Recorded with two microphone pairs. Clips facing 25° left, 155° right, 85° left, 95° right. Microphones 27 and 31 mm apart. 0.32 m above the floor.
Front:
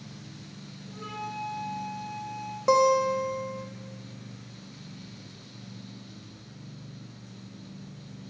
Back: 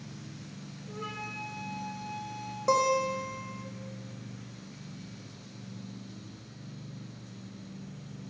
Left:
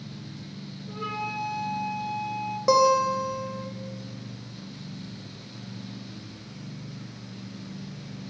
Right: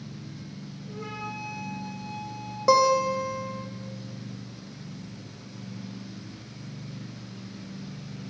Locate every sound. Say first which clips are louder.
0.9 s a flute: front 2 dB, left 5 dB; 130° left, 3 m
2.7 s a guitar: front 5 dB, even; 10° right, 1.2 m